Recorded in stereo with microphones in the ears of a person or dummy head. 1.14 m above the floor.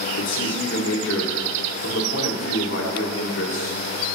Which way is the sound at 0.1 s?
75° left (ahead or behind).